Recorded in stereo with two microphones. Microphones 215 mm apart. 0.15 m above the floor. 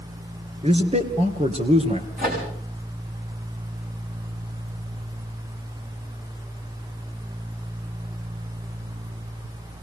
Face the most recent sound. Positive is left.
turn(degrees=-40)  # may be behind; listen again after turning